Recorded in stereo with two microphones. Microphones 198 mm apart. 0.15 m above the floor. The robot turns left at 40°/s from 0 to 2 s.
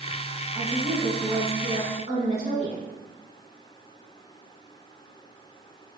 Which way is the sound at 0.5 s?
30° right.